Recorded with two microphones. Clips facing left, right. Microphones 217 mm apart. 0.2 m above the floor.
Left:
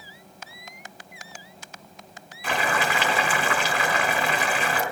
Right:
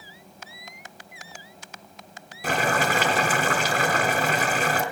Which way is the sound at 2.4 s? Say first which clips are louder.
Right 2 dB; 40° right (ahead or behind).